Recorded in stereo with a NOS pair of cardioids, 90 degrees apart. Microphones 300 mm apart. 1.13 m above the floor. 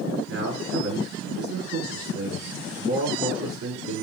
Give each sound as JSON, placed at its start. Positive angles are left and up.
{"t": 0.3, "sound": "a man speaking", "azimuth_deg": -55, "distance_m": 3.0}